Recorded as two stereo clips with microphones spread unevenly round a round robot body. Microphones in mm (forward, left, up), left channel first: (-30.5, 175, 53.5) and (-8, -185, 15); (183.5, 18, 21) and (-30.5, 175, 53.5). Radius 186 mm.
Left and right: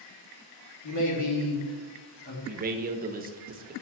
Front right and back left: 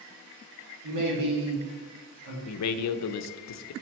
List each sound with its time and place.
0.8 s a man speaking: 135° left, 2 m; by 2.4 s 160° left, 2.5 m
2.5 s a man speaking: 20° right, 0.6 m